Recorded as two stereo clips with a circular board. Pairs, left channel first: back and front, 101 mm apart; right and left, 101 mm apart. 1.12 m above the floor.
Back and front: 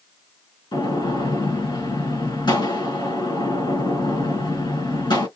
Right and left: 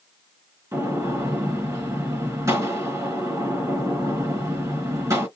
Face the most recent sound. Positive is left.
turn(degrees=145)